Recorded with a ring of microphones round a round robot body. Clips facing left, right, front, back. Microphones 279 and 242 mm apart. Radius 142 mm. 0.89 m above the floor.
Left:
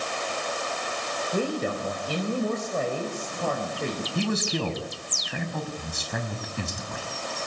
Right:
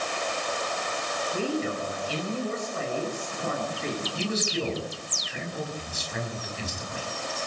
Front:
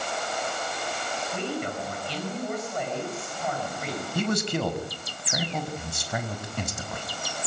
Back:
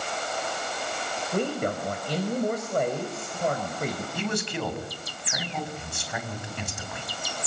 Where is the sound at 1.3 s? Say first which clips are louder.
Left 1 dB, back 5 dB; 135° left, 4.5 m.